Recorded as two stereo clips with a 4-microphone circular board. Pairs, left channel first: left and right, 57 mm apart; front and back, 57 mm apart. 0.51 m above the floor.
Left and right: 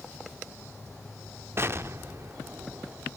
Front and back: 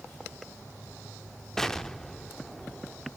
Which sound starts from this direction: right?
An explosion, at 1.6 s.